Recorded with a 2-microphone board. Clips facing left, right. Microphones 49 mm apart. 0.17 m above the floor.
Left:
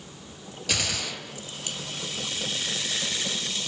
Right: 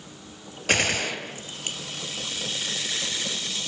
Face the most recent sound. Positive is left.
turn(degrees=-45)  # may be behind; listen again after turning